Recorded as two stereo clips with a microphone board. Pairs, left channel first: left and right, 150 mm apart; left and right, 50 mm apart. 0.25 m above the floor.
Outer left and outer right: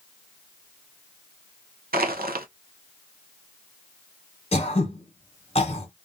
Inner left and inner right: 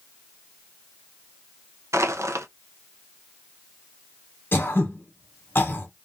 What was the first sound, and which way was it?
Crushing, 85° right.